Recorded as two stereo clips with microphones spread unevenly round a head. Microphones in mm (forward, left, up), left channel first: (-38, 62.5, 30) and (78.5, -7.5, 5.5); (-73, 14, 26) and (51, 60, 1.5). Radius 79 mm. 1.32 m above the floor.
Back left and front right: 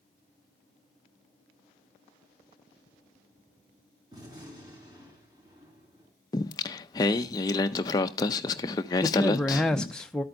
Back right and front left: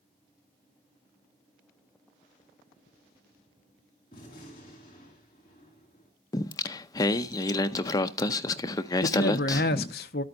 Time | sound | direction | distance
4.1 | a gunshot | 100° right | 3.5 m
6.3 | singing | 175° left | 0.5 m
9.0 | a man speaking | 125° right | 0.8 m